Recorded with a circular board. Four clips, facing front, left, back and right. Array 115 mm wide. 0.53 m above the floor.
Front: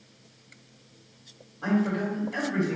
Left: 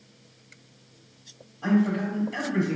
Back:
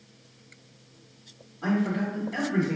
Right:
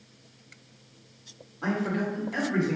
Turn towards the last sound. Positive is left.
turn(degrees=-85)